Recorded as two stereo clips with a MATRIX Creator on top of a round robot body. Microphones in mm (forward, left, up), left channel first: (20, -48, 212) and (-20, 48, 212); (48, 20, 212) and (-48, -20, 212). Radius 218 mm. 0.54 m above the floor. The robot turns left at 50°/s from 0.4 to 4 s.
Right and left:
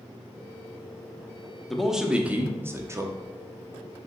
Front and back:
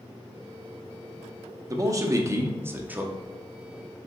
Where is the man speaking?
155° right, 0.9 m; by 4.0 s 90° left, 0.9 m.